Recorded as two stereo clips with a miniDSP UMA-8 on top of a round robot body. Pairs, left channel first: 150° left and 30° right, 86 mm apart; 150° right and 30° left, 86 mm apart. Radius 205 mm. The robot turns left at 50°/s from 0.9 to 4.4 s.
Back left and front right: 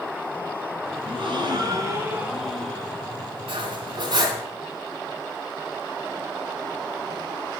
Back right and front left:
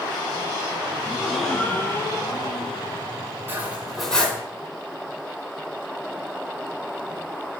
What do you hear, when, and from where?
1.0 s a gasp: 45° right, 1.5 m; by 3.1 s 150° right, 1.5 m
3.5 s cutlery clinking: 35° right, 3.5 m; by 4.4 s 80° right, 3.5 m